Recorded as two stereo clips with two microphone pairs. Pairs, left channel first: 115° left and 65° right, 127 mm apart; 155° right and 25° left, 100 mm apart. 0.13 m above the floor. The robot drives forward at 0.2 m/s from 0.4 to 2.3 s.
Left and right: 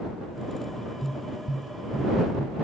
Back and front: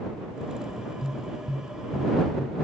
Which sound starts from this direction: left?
Tapping, at 1.0 s.